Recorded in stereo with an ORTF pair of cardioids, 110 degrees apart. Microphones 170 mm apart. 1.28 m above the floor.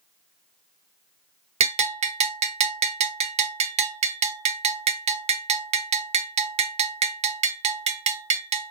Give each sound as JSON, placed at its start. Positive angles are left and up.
{"t": 1.6, "sound": "a bell", "azimuth_deg": -40, "distance_m": 0.7}